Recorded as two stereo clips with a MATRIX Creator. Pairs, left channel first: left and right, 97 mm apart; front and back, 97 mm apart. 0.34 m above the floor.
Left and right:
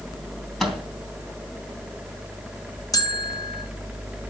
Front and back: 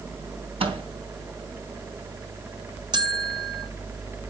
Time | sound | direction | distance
0.6 | a microwave | 175° left | 3.5 m
2.9 | a bell | 140° left | 1.6 m